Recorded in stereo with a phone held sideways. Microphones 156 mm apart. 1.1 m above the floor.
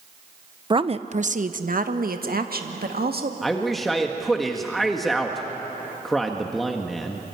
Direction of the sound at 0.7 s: 30° right (ahead or behind).